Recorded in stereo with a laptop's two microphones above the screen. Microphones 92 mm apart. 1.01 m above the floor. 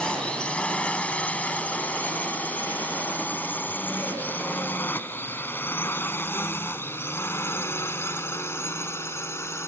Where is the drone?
10° left (ahead or behind); by 9.7 s 30° left (ahead or behind).